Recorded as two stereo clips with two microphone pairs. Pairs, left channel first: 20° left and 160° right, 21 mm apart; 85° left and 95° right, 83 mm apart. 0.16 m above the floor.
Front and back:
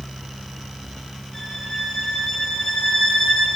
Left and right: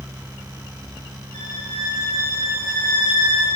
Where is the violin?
70° left, 6.5 m.